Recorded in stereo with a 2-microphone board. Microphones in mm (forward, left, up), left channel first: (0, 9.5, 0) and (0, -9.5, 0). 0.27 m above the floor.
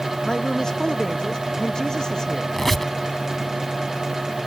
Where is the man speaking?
45° left (ahead or behind); by 2.4 s 40° left (ahead or behind).